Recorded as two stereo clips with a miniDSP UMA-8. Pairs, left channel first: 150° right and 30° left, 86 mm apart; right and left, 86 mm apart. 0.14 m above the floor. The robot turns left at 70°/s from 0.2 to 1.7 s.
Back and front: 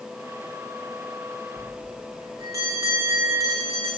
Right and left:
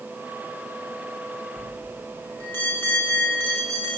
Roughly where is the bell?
Ahead.